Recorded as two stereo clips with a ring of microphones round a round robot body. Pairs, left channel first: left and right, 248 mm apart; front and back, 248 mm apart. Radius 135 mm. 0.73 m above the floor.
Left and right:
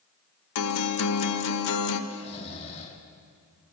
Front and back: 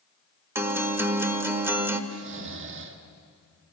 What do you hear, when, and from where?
0.6 s a guitar: 100° left, 1.4 m
2.1 s snoring: 155° left, 1.5 m